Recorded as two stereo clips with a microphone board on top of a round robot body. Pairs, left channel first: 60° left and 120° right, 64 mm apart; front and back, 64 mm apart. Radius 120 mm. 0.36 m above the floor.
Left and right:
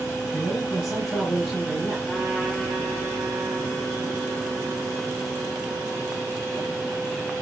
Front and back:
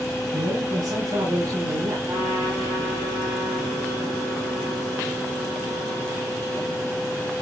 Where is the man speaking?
150° left, 5.5 m; by 2.0 s 145° left, 6.5 m.